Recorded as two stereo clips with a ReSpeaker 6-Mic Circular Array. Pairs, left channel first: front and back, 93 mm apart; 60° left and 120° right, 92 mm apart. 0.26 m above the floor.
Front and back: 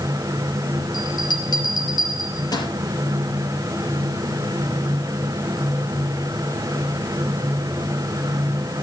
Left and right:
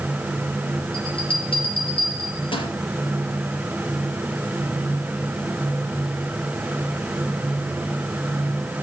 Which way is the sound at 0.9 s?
40° left.